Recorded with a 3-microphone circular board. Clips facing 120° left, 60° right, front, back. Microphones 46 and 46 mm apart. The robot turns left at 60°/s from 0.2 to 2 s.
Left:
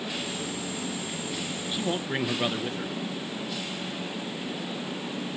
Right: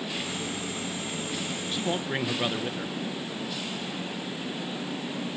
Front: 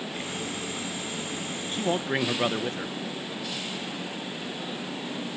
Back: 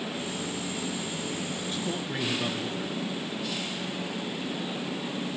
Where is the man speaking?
45° left, 0.9 m; by 2.9 s 25° left, 0.9 m.